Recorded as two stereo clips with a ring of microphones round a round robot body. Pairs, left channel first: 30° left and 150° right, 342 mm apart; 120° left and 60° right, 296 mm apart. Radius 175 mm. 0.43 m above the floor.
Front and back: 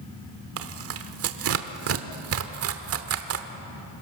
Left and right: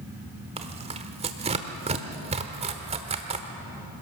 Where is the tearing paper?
120° right, 1.1 m.